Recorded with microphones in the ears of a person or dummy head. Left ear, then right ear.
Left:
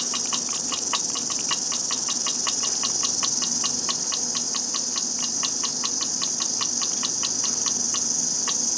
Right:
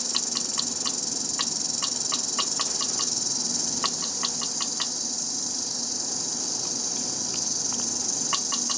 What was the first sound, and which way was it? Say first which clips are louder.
An insect: left 1 dB; 30° right (ahead or behind).